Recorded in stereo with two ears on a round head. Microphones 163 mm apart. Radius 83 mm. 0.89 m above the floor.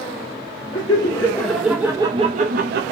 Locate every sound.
0.7 s laughter: 25° left (ahead or behind), 1.0 m; by 2.9 s 60° right (ahead or behind), 0.7 m